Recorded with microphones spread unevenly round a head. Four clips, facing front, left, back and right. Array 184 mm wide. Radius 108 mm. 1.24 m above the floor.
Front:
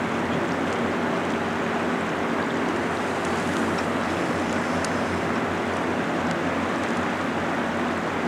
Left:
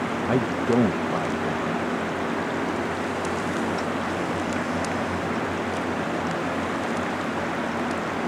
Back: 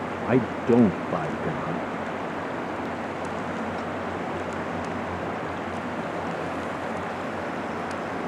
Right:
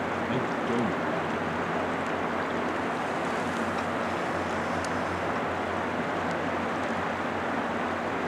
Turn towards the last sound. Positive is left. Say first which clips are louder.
# left 9 dB, back 3 dB
turn(degrees=150)